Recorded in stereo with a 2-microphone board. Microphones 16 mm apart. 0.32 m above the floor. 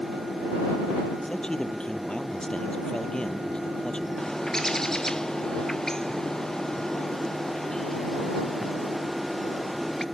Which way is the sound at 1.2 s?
65° left (ahead or behind).